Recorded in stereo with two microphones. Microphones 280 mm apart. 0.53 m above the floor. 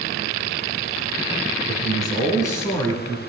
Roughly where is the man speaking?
Centre.